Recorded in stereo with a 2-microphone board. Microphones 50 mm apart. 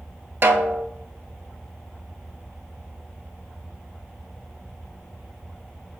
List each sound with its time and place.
0.4 s a snare drum: 45° right (ahead or behind), 0.7 m